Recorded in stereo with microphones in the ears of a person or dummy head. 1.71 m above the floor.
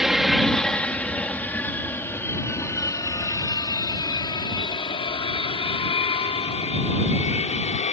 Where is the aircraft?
Centre (ahead or behind); by 7.9 s 35° left (ahead or behind).